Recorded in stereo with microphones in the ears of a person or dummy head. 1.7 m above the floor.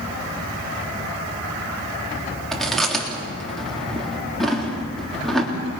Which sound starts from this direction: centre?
Chewing, at 2.5 s.